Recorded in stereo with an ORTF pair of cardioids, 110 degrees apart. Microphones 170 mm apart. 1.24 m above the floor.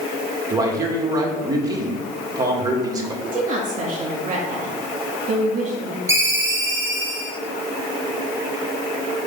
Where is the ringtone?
15° right, 2.5 m.